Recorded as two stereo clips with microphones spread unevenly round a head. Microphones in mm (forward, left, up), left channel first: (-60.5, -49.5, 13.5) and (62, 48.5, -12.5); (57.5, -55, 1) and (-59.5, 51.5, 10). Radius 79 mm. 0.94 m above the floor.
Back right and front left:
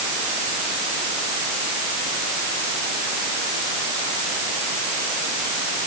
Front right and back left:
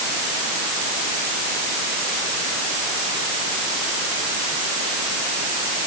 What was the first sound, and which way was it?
Only background noise.